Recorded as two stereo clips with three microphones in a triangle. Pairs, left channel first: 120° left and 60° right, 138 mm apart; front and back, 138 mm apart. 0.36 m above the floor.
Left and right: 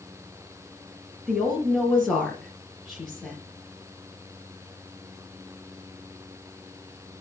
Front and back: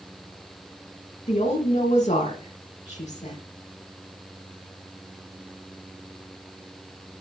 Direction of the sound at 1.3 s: 35° left.